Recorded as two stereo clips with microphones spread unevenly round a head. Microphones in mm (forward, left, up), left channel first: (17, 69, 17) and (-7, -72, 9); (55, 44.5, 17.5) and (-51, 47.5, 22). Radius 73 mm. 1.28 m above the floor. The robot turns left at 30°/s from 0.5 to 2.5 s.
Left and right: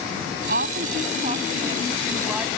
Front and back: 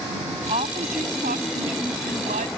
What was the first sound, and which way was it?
A woman speaking, 125° right.